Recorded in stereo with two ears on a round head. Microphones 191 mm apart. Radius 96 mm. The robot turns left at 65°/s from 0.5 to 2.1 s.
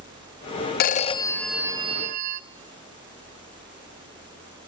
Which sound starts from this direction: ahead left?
A phone ringing, at 0.8 s.